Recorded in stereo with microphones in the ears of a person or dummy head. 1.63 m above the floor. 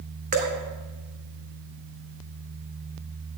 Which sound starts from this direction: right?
Dripping, at 0.3 s.